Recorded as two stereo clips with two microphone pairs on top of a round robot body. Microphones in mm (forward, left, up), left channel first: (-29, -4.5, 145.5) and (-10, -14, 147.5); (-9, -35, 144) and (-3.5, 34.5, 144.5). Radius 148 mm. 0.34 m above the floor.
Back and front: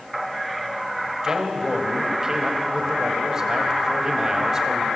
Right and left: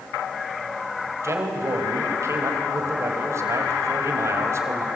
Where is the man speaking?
35° left, 3.5 m.